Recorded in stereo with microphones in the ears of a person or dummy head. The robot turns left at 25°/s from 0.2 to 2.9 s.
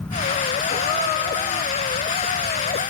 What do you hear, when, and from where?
0.7 s a gasp: 30° left (ahead or behind), 0.7 m; by 1.8 s 25° left (ahead or behind), 0.7 m